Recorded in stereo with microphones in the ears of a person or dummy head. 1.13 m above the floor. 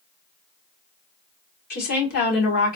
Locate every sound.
1.7 s a woman speaking: 45° left (ahead or behind), 1.9 m